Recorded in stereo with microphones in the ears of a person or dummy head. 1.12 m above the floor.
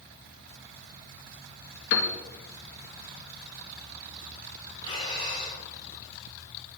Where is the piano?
65° left (ahead or behind), 2.0 m.